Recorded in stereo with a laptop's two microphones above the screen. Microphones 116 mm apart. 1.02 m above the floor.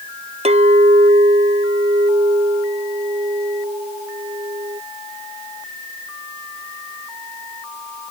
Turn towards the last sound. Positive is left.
turn(degrees=-60)  # may be behind; listen again after turning